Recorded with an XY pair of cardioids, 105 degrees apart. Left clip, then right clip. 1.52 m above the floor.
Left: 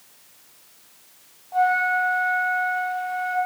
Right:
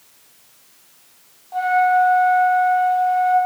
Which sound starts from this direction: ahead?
A flute, at 1.5 s.